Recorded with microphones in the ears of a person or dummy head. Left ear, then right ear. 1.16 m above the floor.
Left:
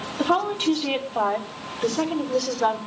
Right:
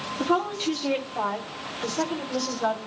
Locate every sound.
0.2 s a woman speaking: 35° left (ahead or behind), 2.5 m